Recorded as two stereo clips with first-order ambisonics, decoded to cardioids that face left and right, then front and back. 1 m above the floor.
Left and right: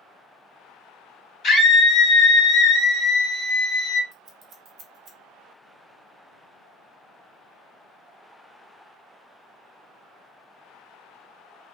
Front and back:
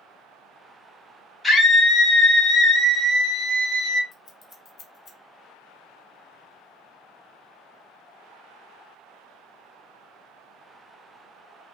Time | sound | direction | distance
1.4 | a scream | 75° left | 1.1 m
4.1 | scissors | 50° right | 0.7 m